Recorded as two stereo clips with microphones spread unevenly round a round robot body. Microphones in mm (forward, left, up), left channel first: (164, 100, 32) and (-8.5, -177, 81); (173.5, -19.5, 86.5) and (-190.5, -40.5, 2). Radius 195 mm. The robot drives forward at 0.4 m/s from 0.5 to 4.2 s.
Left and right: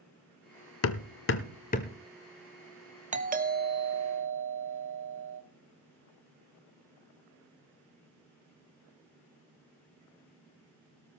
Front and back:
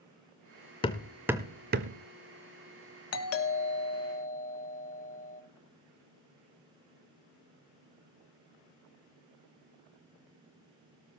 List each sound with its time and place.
0.8 s hammering: 40° left, 0.6 m; by 2.0 s 135° left, 0.6 m
3.1 s a doorbell: 50° right, 1.3 m; by 5.4 s 70° right, 1.1 m